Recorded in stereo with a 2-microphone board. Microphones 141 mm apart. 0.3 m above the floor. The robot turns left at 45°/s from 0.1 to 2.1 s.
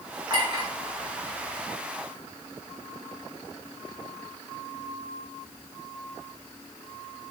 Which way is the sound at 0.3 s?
35° right (ahead or behind).